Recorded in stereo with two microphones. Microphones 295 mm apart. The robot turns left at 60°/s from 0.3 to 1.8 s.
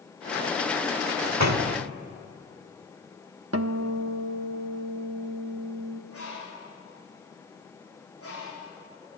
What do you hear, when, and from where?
1.2 s a door slam: 55° right, 1.3 m; by 1.9 s 90° right, 1.3 m
3.5 s a guitar: 55° right (ahead or behind), 1.0 m
6.1 s a bird: 50° left (ahead or behind), 9.5 m